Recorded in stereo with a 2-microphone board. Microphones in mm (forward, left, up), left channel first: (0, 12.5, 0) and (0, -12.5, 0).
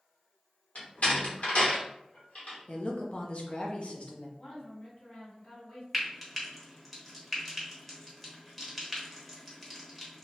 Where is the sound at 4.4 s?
45° left (ahead or behind), 2.0 m.